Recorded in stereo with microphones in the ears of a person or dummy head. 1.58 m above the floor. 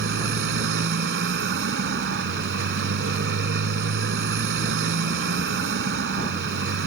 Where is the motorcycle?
60° right (ahead or behind).